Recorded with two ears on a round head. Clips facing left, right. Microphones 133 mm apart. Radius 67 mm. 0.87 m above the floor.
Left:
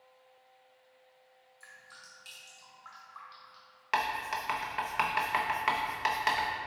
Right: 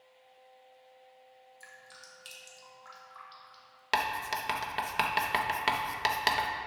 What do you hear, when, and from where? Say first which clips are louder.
1.6 s dripping: right 3 dB; 30° right (ahead or behind), 1.6 m
3.9 s writing: even; 35° right (ahead or behind), 0.7 m